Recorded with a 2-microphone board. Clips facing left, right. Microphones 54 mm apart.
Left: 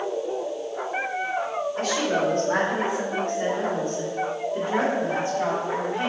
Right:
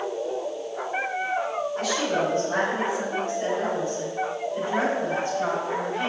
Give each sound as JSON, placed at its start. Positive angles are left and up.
{"t": 1.8, "sound": "a woman speaking", "side_deg": 45, "distance_m": 1.4}